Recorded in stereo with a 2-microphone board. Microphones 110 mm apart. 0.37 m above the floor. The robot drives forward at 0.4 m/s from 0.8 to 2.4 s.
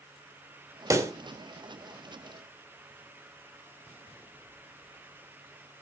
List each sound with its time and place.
0.9 s a pop: 30° right (ahead or behind), 1.0 m; by 1.1 s 25° right (ahead or behind), 1.0 m